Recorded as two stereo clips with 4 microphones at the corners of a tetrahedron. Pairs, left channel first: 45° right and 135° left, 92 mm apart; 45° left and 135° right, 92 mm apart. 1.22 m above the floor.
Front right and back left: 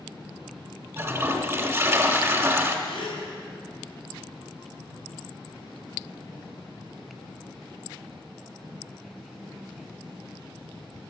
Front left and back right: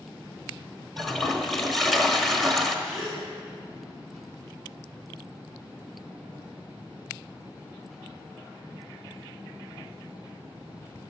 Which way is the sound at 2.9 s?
45° right.